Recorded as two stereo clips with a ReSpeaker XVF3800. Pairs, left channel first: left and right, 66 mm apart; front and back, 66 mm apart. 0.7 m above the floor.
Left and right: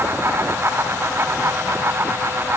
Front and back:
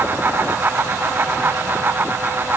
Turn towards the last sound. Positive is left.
No sound to turn to.